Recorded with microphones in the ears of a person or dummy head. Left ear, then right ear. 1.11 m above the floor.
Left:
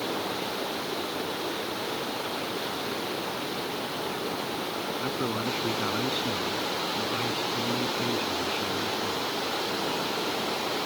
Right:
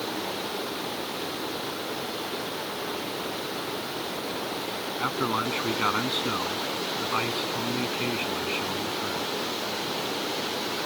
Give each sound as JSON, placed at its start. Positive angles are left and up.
{"t": 5.0, "sound": "a man speaking", "side_deg": -30}